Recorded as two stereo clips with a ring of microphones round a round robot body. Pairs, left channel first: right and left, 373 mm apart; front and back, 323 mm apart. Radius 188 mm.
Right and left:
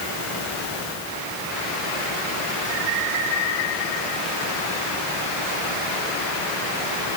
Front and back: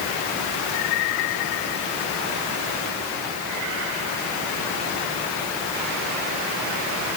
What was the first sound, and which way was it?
Only background noise.